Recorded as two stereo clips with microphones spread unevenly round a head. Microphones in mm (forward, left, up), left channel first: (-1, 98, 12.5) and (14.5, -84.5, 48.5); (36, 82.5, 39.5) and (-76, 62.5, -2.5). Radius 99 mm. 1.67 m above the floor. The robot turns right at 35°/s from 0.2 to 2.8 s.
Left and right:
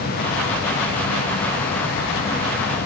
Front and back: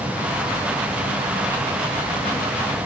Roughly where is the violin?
No violin in this recording.